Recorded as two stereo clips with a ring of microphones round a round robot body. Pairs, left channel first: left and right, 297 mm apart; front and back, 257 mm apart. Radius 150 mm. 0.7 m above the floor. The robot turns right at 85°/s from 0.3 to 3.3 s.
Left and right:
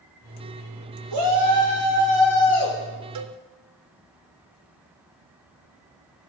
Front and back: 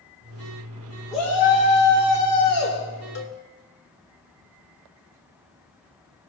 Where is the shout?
95° right, 1.9 m; by 2.8 s 45° left, 1.9 m.